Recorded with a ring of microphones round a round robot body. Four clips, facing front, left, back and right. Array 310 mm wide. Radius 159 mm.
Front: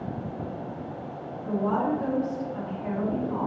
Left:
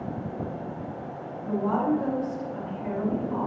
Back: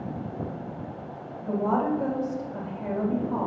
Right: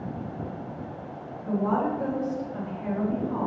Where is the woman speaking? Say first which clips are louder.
Even, back 1 dB; 165° right, 3 m.